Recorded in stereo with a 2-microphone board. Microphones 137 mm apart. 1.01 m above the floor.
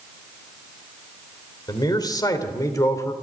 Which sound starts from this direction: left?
A man speaking, at 1.7 s.